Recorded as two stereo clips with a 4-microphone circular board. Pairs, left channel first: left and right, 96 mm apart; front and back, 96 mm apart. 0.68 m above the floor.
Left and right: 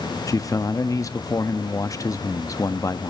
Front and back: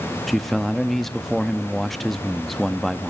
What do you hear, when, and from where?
0.3 s a man speaking: 85° left, 0.6 m